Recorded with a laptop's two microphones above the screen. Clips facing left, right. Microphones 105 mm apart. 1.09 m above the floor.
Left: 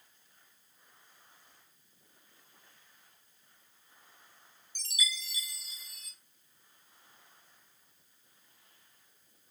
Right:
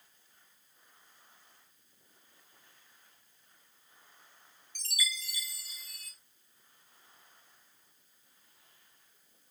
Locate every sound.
4.8 s a chime: 20° left (ahead or behind), 0.9 m